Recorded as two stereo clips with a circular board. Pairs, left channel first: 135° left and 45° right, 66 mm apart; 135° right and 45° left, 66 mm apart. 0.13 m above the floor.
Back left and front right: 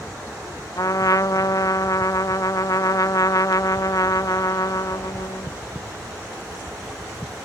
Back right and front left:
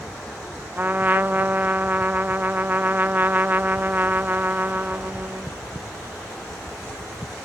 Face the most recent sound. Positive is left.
turn(degrees=105)